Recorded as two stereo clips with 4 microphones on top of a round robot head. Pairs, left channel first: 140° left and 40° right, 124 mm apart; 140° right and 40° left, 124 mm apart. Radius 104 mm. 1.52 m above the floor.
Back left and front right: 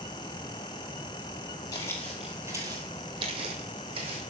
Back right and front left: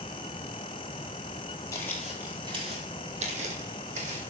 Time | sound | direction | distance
1.7 | footsteps | straight behind | 1.6 m